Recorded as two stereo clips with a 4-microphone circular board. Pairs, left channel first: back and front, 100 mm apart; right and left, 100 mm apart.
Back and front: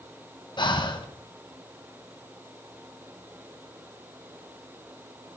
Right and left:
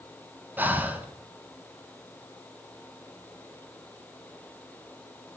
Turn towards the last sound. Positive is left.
turn(degrees=160)